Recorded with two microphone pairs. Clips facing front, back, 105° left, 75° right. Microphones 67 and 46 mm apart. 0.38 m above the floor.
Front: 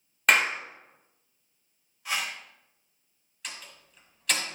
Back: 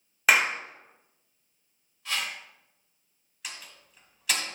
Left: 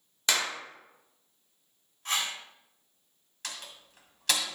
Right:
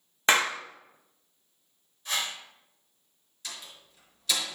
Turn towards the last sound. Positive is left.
turn(degrees=95)